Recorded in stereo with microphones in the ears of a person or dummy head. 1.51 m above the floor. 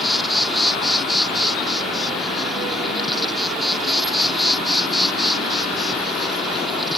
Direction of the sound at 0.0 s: Centre (ahead or behind).